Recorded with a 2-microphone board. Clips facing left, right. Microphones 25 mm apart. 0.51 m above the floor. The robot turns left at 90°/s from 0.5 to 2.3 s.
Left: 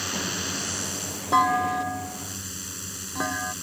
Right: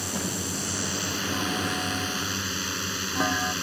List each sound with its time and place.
0.0 s a drone: 20° left; by 3.6 s 140° right
1.3 s a clunk: 85° left; by 3.5 s 5° right